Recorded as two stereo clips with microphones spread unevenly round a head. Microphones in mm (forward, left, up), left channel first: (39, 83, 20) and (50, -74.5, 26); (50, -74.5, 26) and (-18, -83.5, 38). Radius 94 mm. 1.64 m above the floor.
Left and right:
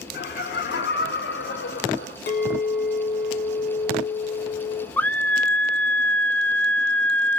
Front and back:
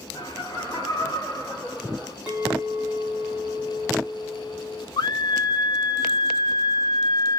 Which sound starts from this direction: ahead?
A scream, at 5.0 s.